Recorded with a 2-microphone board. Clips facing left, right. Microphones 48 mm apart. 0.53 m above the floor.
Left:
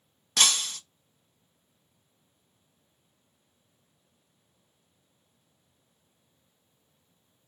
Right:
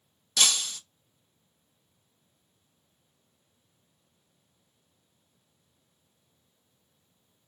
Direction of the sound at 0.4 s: 60° left (ahead or behind).